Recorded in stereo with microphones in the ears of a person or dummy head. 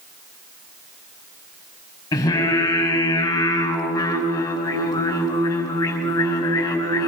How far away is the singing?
About 5 m.